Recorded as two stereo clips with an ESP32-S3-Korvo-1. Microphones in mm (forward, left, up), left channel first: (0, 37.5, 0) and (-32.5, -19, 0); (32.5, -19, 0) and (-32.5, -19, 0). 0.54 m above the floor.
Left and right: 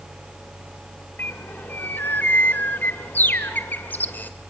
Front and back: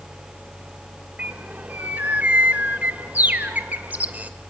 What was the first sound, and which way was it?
A bird, 120° left.